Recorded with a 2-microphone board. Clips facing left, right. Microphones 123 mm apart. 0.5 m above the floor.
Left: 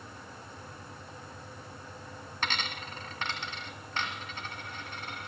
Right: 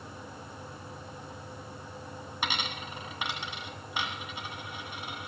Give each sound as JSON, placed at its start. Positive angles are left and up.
{"t": 2.4, "sound": "a dropped coin", "side_deg": -10, "distance_m": 2.0}